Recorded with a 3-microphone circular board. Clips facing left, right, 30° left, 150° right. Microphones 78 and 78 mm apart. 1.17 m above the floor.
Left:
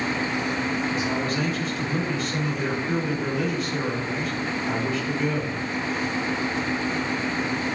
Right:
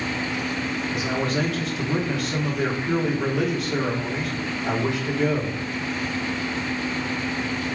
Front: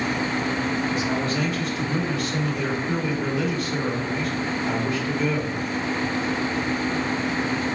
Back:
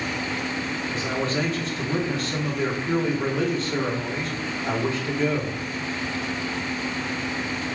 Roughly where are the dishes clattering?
No dishes clattering in this recording.